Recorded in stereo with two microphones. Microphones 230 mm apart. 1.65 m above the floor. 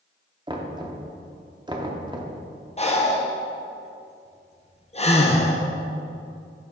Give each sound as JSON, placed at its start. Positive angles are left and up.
{"t": 0.5, "sound": "knocking", "side_deg": -20, "distance_m": 0.6}
{"t": 2.8, "sound": "breathing", "side_deg": 30, "distance_m": 0.7}